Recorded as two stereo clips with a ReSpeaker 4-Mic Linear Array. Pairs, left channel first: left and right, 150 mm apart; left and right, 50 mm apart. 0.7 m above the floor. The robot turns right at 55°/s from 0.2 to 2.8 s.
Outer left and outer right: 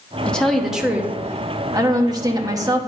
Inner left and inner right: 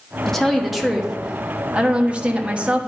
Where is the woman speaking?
10° left (ahead or behind), 1.1 m; by 2.9 s 20° right (ahead or behind), 1.1 m.